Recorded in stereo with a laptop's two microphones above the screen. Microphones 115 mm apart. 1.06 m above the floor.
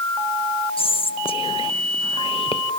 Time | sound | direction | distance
0.8 | whispering | 50° left (ahead or behind) | 1.3 m